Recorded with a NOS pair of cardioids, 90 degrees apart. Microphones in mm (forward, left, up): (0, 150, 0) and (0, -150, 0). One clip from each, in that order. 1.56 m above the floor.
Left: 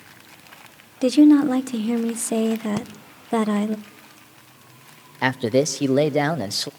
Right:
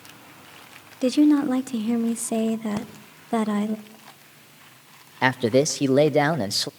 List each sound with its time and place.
1.0 s a woman speaking: 15° left, 1.1 m
2.8 s breathing: 20° left, 1.5 m
5.2 s a man speaking: 5° right, 0.8 m